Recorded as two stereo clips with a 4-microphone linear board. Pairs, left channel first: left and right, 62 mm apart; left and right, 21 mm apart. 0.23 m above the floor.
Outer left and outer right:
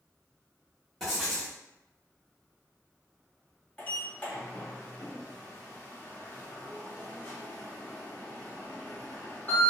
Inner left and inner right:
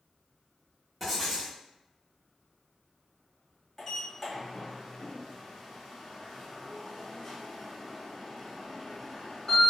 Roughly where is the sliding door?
Left.